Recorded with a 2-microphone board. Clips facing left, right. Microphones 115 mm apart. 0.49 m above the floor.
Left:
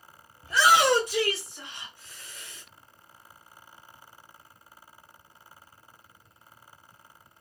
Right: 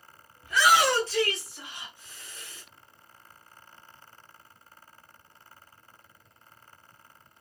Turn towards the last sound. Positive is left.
turn(degrees=-35)  # may be behind; listen again after turning